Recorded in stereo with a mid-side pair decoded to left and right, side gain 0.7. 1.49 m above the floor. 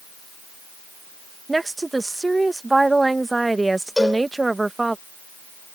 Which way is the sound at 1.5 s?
10° right.